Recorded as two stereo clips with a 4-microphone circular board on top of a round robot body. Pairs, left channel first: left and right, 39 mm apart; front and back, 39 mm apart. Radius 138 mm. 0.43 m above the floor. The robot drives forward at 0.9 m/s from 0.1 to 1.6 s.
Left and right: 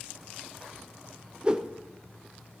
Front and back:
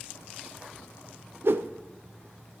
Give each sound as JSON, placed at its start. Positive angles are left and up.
{"t": 1.4, "sound": "a whoosh", "azimuth_deg": -155, "distance_m": 0.5}